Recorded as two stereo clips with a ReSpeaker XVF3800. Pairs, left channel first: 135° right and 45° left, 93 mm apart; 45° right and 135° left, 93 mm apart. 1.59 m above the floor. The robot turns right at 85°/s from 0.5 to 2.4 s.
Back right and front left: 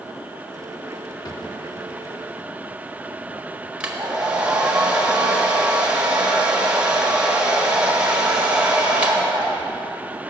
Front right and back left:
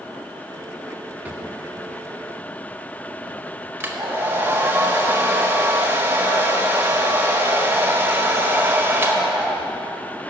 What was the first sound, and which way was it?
A drawer, 160° right.